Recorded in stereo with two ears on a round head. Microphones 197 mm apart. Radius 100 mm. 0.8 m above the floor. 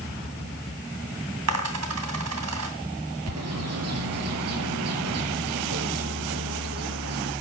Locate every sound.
1.5 s a dropped coin: 85° right, 2.5 m
3.3 s a bird: 75° right (ahead or behind), 5 m